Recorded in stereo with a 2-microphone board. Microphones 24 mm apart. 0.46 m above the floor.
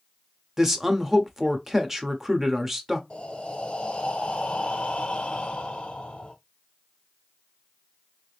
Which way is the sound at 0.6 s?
15° right (ahead or behind).